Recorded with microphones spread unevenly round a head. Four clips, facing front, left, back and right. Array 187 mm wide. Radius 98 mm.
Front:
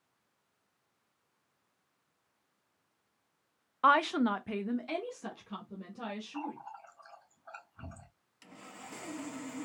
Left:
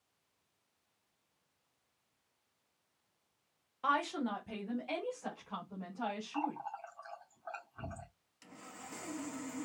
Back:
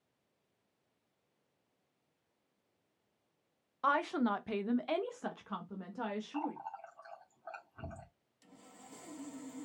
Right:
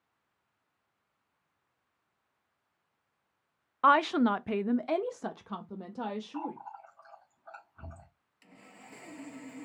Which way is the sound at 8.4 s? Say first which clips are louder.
Left 3 dB, front 7 dB; 10° left.